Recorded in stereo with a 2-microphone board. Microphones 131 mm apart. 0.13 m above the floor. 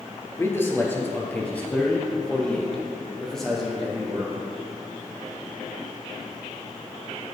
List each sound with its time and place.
0.4 s a man speaking: 20° left (ahead or behind), 2 m; by 4.4 s centre (ahead or behind), 4 m